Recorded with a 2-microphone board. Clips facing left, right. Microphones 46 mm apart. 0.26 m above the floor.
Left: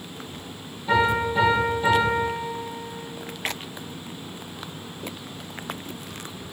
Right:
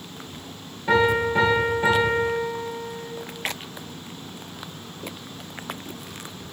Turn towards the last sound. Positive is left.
turn(degrees=-60)  # may be behind; listen again after turning